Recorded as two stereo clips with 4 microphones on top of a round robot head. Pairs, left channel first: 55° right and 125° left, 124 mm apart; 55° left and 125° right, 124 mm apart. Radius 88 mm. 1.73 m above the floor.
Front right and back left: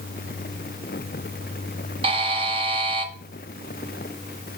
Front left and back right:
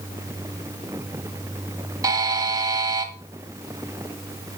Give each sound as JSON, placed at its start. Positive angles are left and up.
{"t": 2.0, "sound": "a buzzer", "azimuth_deg": 175, "distance_m": 1.0}